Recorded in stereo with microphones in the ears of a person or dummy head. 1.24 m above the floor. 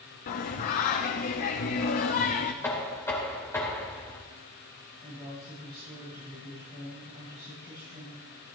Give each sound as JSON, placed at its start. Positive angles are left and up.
{"t": 0.3, "sound": "singing", "side_deg": 45, "distance_m": 0.9}
{"t": 2.6, "sound": "knocking", "side_deg": 15, "distance_m": 2.5}
{"t": 5.0, "sound": "a woman speaking", "side_deg": -35, "distance_m": 6.0}